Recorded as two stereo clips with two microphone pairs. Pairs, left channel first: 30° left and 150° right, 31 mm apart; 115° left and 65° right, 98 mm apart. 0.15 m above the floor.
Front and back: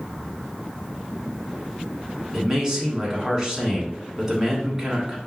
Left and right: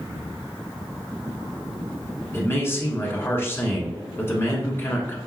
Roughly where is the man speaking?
Behind left.